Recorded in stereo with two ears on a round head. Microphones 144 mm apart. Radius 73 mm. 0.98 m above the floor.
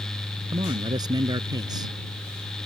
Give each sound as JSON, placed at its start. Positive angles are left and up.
{"t": 0.5, "sound": "a man speaking", "side_deg": -25}